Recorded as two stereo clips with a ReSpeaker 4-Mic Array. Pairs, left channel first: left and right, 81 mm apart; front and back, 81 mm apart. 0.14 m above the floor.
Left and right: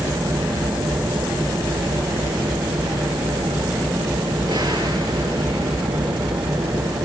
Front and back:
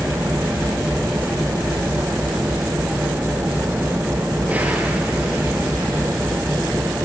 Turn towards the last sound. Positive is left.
turn(degrees=-115)